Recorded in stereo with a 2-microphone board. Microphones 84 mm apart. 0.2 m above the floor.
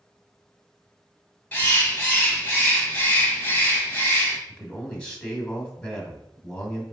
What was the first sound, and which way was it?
A bird, 25° left (ahead or behind).